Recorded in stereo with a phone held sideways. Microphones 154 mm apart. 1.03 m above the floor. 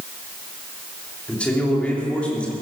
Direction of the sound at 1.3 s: 10° left (ahead or behind).